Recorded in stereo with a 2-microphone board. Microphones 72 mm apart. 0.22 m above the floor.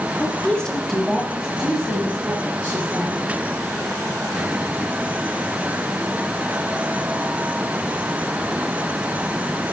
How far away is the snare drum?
I don't hear a snare drum.